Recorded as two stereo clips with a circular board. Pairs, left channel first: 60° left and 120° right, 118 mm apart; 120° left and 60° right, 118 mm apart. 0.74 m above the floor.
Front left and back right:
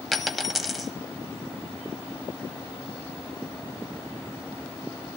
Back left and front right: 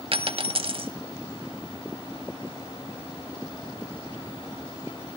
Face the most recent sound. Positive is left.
turn(degrees=-30)